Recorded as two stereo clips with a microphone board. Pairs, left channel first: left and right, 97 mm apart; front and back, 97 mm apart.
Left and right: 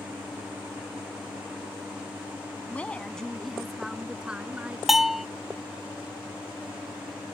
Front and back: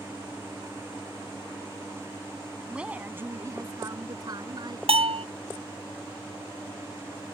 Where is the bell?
175° right.